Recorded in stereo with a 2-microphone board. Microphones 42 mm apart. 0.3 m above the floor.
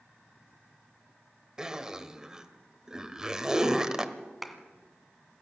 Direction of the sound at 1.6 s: 15° right (ahead or behind).